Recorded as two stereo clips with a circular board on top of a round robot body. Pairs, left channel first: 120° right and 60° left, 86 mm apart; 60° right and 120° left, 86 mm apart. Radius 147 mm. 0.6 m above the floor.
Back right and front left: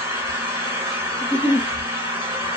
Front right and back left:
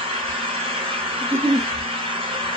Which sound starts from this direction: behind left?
An engine running, at 0.0 s.